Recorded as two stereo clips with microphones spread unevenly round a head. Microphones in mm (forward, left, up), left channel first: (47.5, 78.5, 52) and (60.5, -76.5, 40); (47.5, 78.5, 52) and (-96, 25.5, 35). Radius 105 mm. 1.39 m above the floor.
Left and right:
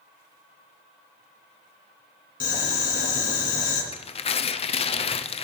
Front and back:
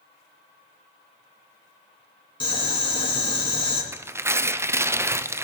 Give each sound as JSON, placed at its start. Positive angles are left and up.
{"t": 2.4, "sound": "boiling", "azimuth_deg": 70, "distance_m": 3.0}
{"t": 3.9, "sound": "tearing paper", "azimuth_deg": 135, "distance_m": 0.6}